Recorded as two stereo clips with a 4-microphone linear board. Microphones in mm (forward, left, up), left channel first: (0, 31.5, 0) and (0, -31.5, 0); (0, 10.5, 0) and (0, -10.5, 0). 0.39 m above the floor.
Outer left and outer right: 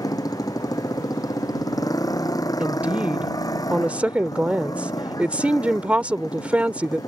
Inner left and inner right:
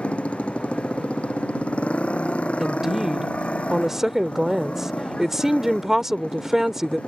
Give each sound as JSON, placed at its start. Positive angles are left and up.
{"t": 0.0, "sound": "a motorcycle", "side_deg": 85}
{"t": 2.6, "sound": "a woman speaking", "side_deg": -20}